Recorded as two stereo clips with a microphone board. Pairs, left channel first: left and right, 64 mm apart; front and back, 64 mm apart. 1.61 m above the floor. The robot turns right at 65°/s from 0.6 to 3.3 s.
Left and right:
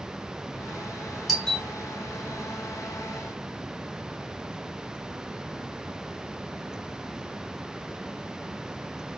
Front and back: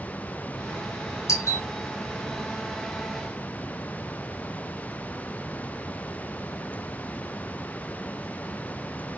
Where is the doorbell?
Straight ahead, 1.1 m; by 1.6 s 20° left, 1.1 m.